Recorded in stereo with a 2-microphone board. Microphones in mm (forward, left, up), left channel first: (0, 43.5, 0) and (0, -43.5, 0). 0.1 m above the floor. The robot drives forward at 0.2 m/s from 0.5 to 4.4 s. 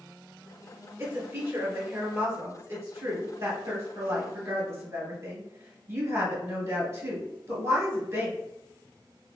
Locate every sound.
1.0 s a woman speaking: 30° right (ahead or behind), 1.9 m